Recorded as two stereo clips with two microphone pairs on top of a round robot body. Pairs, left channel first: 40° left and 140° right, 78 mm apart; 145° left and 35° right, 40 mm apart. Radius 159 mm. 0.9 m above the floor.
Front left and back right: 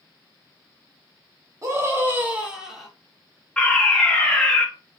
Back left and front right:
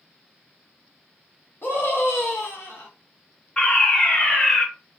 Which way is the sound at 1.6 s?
170° left.